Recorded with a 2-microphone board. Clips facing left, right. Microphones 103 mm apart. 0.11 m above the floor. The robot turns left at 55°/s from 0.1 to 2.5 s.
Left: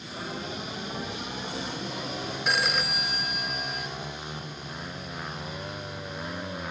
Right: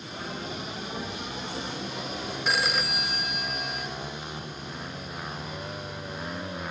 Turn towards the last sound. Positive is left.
turn(degrees=0)  # may be behind; listen again after turning